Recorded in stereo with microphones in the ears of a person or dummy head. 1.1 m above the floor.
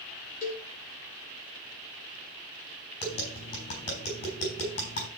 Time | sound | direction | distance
0.4 | a cowbell | 50° left (ahead or behind) | 3 m
3.0 | tapping | 60° left (ahead or behind) | 4.5 m